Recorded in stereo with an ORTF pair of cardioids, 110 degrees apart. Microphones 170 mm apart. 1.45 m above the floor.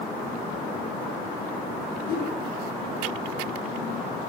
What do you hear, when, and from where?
2.1 s a whoosh: 65° left, 1.6 m